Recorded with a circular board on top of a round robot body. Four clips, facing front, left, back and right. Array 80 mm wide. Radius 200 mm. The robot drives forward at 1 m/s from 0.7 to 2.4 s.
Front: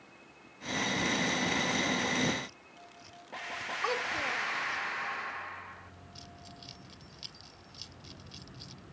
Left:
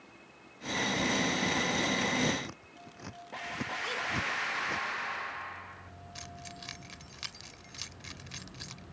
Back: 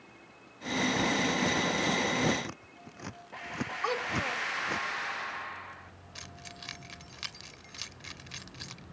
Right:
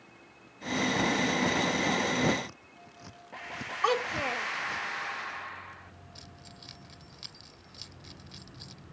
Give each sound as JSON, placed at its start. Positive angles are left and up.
{"t": 2.4, "sound": "scissors", "azimuth_deg": 165}
{"t": 3.8, "sound": "a child speaking", "azimuth_deg": -90}
{"t": 6.2, "sound": "keys jangling", "azimuth_deg": 150}